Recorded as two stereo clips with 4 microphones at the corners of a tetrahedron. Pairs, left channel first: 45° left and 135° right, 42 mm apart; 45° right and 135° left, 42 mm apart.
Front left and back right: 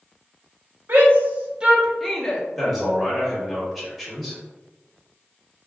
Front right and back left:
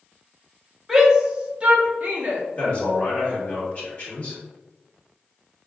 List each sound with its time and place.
0.9 s a shout: 150° right, 0.8 m; by 2.4 s 115° left, 0.7 m
2.6 s a man speaking: 45° right, 1.3 m